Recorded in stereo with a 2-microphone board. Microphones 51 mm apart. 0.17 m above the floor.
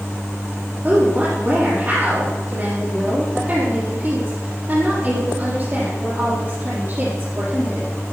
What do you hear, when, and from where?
0.8 s a woman speaking: 25° right (ahead or behind), 6 m